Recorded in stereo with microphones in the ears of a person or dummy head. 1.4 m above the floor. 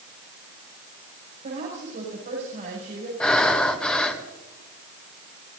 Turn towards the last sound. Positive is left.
turn(degrees=5)  # may be behind; listen again after turning